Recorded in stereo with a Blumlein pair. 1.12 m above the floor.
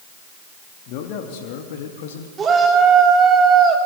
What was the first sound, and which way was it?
A man speaking, 45° left.